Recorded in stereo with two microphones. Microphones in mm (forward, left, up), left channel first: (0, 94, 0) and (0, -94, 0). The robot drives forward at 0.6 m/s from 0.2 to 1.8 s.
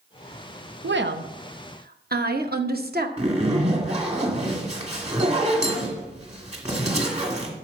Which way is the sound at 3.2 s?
35° right (ahead or behind).